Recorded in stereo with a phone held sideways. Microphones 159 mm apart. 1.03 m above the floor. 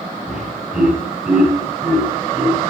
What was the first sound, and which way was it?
Laughter, centre (ahead or behind).